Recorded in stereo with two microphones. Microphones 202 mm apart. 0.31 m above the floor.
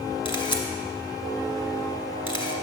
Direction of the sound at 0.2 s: 25° left (ahead or behind).